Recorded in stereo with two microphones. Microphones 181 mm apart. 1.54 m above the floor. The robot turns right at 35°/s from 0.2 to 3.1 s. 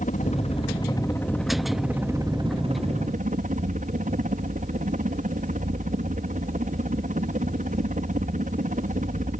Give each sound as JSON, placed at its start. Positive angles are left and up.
{"t": 0.0, "sound": "a helicopter", "azimuth_deg": 130}